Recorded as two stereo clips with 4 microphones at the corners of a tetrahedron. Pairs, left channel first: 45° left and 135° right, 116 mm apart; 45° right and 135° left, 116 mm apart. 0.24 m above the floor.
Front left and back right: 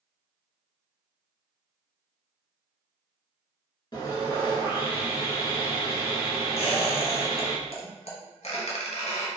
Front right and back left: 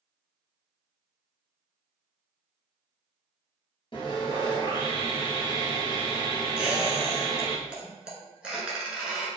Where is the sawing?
5° right, 1.4 m.